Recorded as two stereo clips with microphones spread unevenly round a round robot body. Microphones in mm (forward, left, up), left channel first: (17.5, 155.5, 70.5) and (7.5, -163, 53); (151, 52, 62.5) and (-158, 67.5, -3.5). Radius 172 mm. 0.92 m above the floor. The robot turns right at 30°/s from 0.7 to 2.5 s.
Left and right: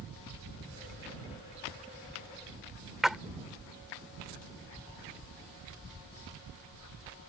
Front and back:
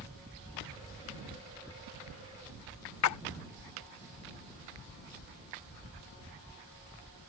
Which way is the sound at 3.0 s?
Straight ahead.